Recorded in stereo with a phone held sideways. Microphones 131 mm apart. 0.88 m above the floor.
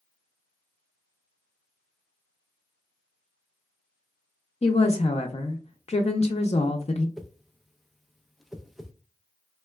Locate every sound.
4.6 s a woman speaking: 55° left (ahead or behind), 0.5 m
7.2 s a whoosh: centre (ahead or behind), 0.5 m